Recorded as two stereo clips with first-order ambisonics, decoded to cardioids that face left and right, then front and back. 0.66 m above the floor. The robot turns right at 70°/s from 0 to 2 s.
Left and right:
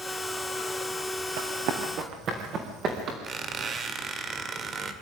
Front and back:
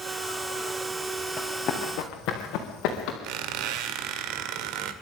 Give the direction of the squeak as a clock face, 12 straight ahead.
5 o'clock.